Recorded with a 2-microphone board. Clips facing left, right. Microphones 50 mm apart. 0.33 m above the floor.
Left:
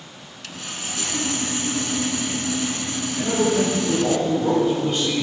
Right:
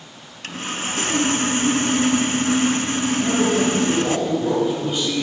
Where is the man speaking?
5° right (ahead or behind), 4.5 m.